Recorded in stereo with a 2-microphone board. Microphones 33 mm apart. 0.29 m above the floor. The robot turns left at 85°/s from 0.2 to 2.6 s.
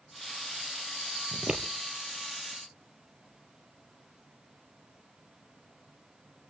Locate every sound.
1.3 s scissors: 5° right (ahead or behind), 2.5 m; by 1.6 s 30° right (ahead or behind), 2.5 m